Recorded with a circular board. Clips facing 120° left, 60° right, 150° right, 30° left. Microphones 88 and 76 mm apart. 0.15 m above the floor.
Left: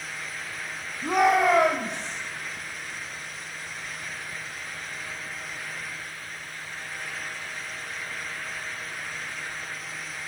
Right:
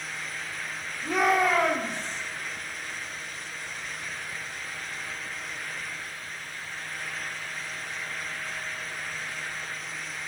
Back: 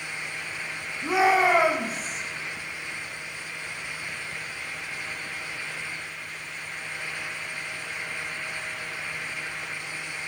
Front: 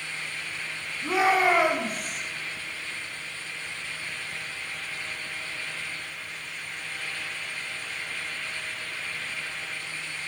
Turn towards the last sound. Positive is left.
turn(degrees=120)